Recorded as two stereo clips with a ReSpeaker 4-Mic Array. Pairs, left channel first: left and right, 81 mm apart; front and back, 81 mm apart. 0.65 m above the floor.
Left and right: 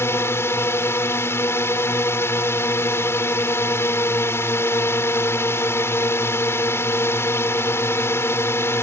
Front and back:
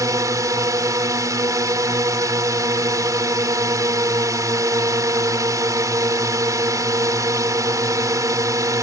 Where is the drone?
145° left.